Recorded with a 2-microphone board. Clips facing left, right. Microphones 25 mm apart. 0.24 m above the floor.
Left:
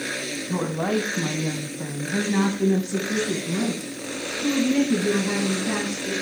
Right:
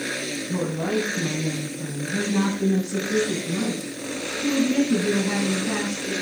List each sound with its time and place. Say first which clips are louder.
0.5 s a woman speaking: left 1 dB; 40° left (ahead or behind), 2 m; by 6.1 s 20° left (ahead or behind), 4.5 m